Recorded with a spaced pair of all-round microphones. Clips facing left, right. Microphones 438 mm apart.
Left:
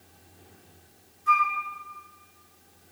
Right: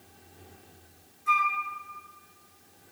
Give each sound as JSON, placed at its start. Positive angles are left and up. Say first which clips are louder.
{"t": 1.3, "sound": "a flute", "louder": "left 3 dB", "side_deg": 35, "distance_m": 2.5}